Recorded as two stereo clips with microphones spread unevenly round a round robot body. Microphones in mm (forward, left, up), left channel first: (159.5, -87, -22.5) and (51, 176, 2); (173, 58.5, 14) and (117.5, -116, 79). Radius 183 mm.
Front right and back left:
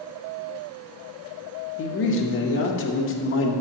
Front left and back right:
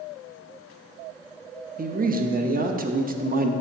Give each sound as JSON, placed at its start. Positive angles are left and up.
{"t": 1.8, "sound": "a man speaking", "azimuth_deg": -55, "distance_m": 0.8}